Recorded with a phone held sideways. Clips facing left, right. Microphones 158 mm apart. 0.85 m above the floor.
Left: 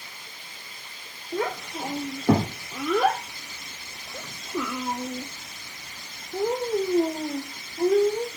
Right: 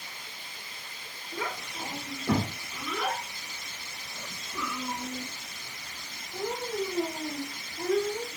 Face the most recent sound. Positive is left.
turn(degrees=30)  # may be behind; listen again after turning